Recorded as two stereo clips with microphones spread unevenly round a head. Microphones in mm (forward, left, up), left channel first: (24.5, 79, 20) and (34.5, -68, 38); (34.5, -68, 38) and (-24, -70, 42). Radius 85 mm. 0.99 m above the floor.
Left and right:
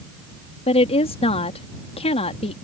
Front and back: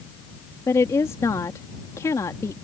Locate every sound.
0.7 s a woman speaking: 50° left